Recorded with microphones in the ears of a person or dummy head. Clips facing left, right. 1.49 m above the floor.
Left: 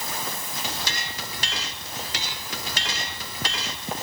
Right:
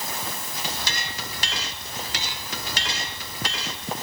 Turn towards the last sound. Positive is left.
No sound to turn to.